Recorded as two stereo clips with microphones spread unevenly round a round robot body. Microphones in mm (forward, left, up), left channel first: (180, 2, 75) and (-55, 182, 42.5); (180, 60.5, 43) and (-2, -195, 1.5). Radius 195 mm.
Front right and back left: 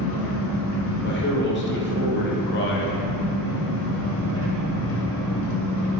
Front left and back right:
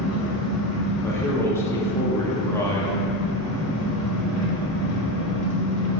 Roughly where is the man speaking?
Ahead right.